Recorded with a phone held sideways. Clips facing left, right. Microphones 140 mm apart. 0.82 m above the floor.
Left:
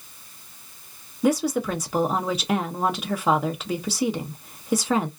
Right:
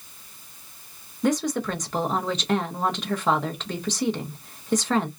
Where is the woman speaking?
10° left (ahead or behind), 0.6 m.